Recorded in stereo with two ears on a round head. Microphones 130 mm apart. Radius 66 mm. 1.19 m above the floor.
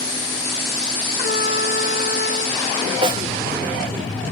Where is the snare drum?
35° right (ahead or behind).